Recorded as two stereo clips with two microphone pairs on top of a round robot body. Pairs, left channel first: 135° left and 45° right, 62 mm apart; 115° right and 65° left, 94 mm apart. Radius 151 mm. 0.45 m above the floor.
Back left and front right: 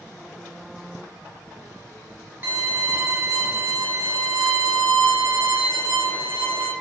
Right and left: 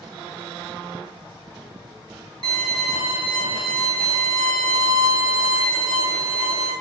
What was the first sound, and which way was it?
A violin, 15° left.